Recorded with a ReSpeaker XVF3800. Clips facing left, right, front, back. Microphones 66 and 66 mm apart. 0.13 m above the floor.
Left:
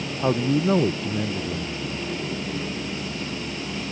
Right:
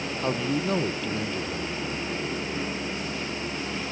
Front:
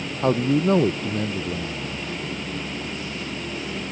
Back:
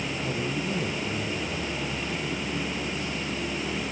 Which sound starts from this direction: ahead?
A man speaking, at 0.2 s.